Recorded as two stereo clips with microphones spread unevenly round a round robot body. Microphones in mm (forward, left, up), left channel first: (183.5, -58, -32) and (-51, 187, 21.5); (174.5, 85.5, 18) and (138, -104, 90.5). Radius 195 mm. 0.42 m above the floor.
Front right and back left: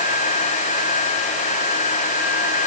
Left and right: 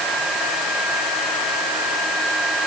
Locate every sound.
Only background noise.